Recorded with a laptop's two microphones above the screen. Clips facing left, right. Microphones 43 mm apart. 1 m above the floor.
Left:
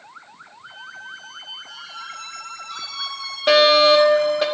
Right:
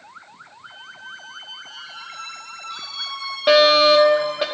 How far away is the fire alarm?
About 2.5 m.